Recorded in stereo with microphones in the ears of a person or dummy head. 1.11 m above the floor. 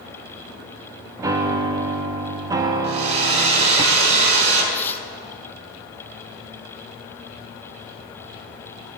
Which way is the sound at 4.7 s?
10° left (ahead or behind).